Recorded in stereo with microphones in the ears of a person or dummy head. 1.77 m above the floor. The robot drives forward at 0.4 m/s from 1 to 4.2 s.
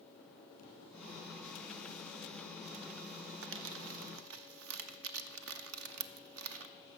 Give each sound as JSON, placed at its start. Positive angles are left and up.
{"t": 3.4, "sound": "crumpling", "side_deg": -65, "distance_m": 0.6}